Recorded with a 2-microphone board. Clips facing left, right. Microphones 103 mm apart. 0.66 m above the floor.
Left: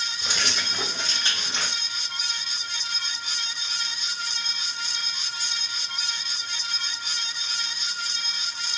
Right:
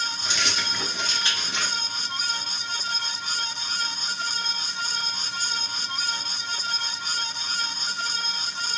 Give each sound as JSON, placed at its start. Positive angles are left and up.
{"t": 0.2, "sound": "keys jangling", "side_deg": 50, "distance_m": 1.7}